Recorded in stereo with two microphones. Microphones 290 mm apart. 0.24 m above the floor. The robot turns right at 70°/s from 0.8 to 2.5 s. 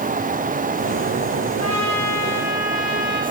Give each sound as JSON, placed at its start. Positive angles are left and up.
{"t": 1.6, "sound": "a trumpet", "azimuth_deg": -135, "distance_m": 7.0}